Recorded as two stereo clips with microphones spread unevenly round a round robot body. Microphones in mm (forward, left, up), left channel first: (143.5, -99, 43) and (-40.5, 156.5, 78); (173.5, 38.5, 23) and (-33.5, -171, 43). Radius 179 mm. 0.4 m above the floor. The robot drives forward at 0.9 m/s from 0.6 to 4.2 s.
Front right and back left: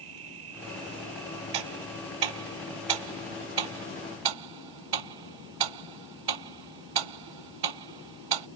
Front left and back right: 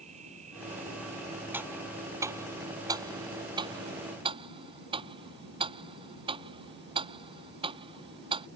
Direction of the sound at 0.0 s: 155° left.